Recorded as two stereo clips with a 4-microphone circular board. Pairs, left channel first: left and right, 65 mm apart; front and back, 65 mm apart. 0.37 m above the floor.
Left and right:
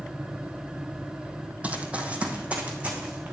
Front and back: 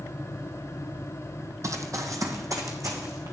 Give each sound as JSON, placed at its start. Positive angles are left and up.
{"t": 1.6, "sound": "running footsteps", "azimuth_deg": -155, "distance_m": 0.8}